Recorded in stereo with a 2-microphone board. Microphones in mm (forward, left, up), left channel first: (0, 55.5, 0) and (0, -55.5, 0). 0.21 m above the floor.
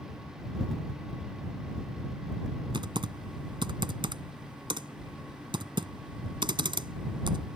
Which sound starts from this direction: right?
Typing on a keyboard, at 2.7 s.